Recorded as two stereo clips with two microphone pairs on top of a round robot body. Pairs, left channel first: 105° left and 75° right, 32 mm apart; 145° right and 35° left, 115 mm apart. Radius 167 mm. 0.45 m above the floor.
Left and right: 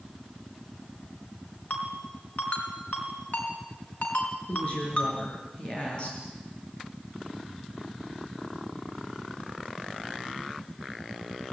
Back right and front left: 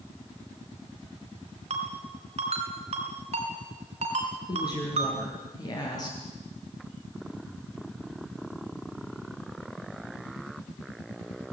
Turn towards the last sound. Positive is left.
turn(degrees=160)